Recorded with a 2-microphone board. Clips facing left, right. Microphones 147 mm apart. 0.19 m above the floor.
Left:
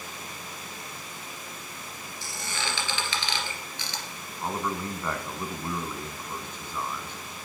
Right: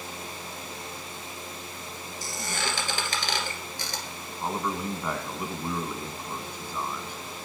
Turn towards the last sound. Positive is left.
turn(degrees=-10)  # may be behind; listen again after turning